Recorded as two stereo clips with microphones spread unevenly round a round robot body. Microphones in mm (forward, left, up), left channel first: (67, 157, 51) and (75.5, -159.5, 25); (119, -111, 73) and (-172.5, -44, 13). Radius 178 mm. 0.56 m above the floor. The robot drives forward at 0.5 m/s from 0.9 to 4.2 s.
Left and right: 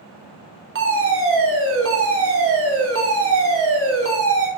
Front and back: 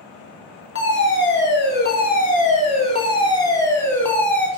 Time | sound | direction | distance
0.8 | a fire alarm | 60° right | 3 m